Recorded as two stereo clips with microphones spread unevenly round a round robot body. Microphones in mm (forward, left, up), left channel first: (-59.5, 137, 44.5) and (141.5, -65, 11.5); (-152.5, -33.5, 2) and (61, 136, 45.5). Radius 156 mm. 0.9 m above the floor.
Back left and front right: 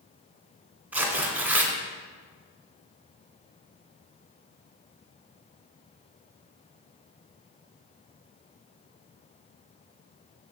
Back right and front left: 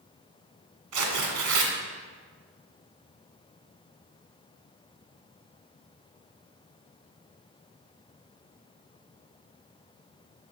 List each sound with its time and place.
0.9 s tearing paper: 40° left, 1.8 m